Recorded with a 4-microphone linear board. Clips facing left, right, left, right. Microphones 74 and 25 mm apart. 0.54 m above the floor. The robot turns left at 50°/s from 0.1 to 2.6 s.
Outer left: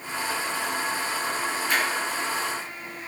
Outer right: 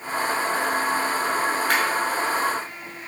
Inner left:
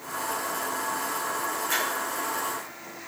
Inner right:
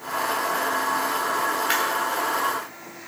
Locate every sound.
1.7 s a clap: 75° right (ahead or behind), 4.5 m; by 1.8 s 80° right, 4.5 m